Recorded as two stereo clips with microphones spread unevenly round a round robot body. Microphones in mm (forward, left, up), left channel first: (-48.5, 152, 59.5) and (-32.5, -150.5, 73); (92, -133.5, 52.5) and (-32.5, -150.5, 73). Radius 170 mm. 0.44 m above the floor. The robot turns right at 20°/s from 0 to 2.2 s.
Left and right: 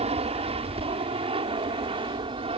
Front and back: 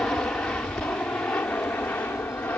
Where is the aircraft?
50° right; by 2.6 s 40° right.